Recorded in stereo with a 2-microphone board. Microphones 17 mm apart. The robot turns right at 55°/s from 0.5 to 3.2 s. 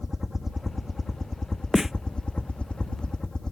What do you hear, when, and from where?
0.0 s a helicopter: 20° right; by 3.5 s 130° left
1.7 s a snare drum: 10° right (ahead or behind); by 1.9 s 20° right (ahead or behind)